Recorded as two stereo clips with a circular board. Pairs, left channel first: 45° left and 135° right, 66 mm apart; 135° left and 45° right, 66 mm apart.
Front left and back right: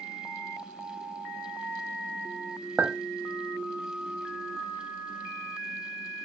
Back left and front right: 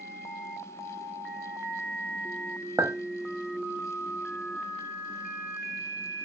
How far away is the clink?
About 0.6 m.